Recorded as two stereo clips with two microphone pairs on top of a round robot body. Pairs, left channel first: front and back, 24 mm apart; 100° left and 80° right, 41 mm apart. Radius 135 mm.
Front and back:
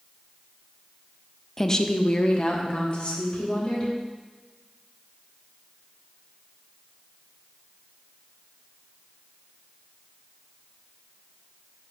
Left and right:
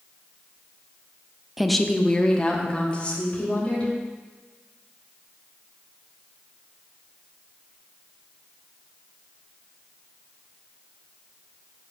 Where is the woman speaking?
40° right, 0.8 m; by 3.9 s 35° left, 3 m.